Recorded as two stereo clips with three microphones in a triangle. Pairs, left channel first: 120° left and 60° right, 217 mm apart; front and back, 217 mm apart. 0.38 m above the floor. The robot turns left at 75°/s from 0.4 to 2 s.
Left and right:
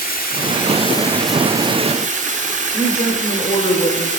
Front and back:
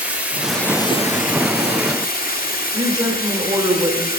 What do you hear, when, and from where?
0.0 s running water: 100° left, 1.0 m; by 4.2 s 20° right, 1.0 m
2.7 s a woman speaking: 125° left, 0.9 m